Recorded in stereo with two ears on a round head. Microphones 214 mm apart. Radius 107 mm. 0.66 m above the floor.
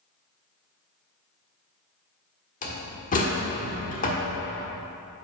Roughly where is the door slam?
Left.